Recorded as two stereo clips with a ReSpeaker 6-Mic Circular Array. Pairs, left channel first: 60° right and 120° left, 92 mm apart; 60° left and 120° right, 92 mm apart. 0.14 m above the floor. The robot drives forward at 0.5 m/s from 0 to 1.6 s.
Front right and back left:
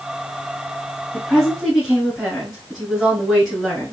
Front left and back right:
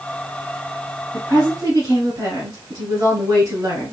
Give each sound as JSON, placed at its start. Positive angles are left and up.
{"t": 1.1, "sound": "a woman speaking", "azimuth_deg": -150, "distance_m": 1.6}